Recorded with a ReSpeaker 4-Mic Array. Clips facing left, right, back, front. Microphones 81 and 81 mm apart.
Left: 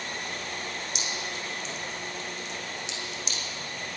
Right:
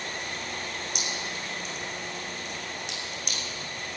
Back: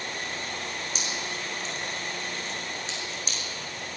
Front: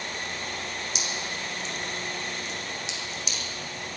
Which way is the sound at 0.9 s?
130° right.